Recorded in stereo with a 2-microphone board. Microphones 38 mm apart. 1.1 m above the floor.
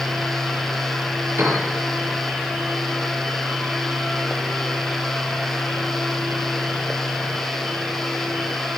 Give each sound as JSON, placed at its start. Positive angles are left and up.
{"t": 1.4, "sound": "a piano", "side_deg": -85, "distance_m": 7.0}